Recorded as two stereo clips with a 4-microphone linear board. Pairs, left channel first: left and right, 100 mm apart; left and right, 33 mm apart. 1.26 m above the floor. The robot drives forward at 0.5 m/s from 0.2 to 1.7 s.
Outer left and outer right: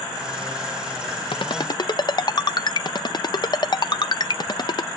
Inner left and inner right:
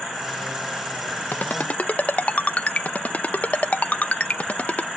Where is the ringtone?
55° left (ahead or behind); by 4.9 s 45° left (ahead or behind).